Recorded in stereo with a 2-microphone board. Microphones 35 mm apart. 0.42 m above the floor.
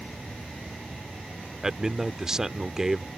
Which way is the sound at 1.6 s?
15° right (ahead or behind).